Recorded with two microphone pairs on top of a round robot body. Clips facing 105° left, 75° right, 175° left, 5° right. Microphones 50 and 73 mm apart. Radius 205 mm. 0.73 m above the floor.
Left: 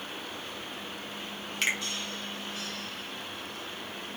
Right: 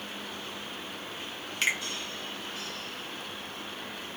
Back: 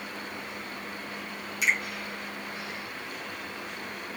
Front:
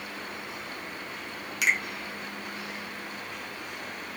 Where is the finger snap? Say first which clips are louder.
Right 1 dB, front 1 dB; 15° left, 1.2 m.